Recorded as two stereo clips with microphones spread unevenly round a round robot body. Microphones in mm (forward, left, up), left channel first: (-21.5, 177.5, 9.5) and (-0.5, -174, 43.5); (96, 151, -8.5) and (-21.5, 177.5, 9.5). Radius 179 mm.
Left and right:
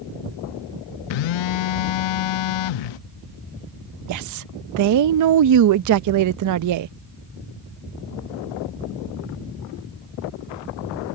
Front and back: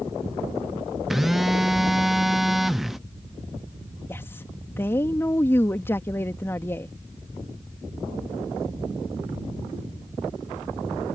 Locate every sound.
1.1 s a phone buzzing: 75° left
4.1 s a woman speaking: 70° right